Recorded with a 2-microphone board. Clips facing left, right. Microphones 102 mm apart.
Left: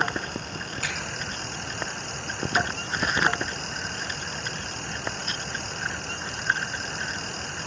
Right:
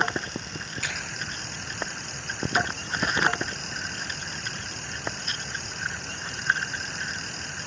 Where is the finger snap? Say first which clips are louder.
Left 1 dB; 50° left (ahead or behind), 6.5 m.